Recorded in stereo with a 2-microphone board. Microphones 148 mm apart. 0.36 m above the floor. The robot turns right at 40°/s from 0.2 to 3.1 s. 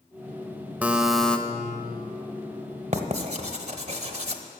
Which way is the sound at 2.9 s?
45° right (ahead or behind).